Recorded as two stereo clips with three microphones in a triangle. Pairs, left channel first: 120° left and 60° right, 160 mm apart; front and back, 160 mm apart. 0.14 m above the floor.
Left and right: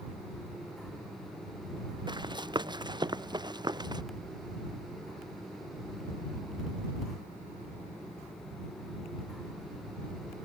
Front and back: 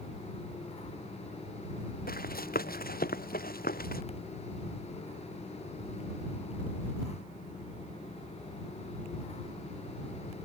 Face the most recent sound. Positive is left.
turn(degrees=0)